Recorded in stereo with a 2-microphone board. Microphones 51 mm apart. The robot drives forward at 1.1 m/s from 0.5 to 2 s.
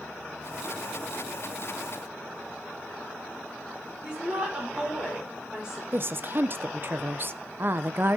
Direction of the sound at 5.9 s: 45° right (ahead or behind).